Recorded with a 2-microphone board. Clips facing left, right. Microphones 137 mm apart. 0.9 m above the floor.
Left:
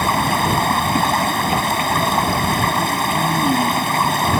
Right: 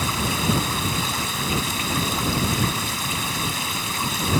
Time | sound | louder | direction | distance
0.0 | running water | left 7 dB | 65° left (ahead or behind) | ?